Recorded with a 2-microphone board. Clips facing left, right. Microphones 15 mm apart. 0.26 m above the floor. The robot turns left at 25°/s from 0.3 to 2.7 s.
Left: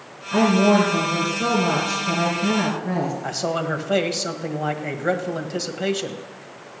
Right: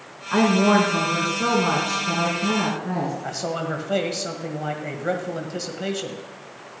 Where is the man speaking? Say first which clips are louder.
Left 3 dB; 20° left (ahead or behind), 1.5 m.